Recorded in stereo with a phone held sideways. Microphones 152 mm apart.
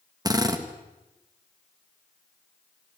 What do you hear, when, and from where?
0.2 s a drill: 25° right (ahead or behind), 1.8 m